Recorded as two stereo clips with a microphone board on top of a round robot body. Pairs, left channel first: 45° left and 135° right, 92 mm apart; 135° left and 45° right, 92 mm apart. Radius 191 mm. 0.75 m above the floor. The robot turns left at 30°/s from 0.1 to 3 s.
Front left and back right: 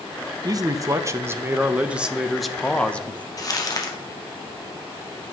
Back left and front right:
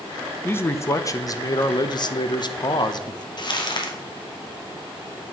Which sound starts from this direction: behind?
A man speaking, at 0.4 s.